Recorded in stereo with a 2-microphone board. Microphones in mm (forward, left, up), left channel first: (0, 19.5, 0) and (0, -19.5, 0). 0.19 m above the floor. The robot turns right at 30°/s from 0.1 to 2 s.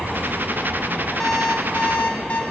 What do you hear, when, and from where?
1.2 s an alarm clock: 15° left (ahead or behind), 5 m; by 2.4 s 40° left (ahead or behind), 5 m